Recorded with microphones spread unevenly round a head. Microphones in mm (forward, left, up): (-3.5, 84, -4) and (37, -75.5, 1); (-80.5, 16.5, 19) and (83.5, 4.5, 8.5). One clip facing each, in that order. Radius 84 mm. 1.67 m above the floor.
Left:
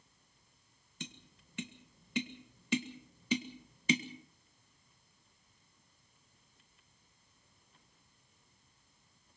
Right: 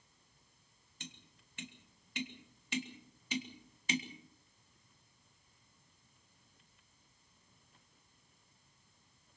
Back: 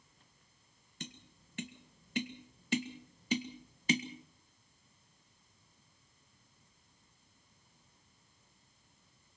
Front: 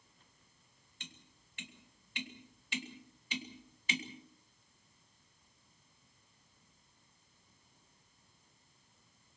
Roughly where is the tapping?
Behind left.